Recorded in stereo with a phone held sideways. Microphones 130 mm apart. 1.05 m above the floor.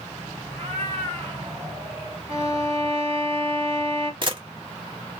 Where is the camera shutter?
40° right (ahead or behind), 1.2 m.